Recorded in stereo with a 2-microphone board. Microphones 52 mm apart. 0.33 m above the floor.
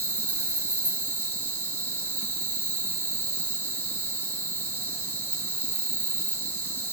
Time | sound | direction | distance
0.0 | an insect | 40° left (ahead or behind) | 2.0 m